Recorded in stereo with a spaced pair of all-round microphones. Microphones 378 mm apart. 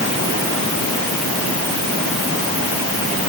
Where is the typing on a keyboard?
No typing on a keyboard in this recording.